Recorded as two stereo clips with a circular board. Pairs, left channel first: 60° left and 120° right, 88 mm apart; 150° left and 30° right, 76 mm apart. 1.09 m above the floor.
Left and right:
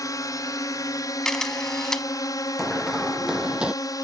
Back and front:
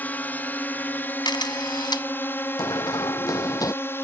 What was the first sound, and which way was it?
A drone, 90° left.